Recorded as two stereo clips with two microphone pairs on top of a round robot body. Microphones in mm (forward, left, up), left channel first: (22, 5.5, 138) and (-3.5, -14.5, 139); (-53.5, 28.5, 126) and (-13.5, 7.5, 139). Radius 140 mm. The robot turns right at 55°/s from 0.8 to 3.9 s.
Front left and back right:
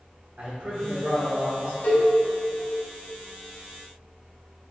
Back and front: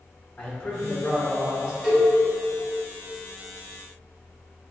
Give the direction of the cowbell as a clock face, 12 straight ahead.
10 o'clock.